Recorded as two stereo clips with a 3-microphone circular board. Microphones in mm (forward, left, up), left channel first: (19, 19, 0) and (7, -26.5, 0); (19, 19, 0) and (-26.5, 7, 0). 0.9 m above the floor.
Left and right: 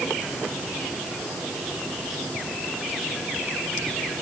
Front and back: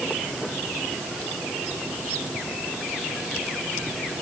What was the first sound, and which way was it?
Only background noise.